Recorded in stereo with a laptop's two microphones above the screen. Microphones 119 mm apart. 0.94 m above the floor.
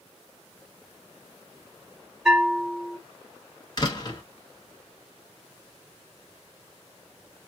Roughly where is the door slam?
Left.